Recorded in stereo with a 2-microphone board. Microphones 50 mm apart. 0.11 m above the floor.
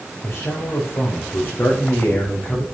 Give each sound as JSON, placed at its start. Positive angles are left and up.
{"t": 0.2, "sound": "a man speaking", "side_deg": 55, "distance_m": 7.5}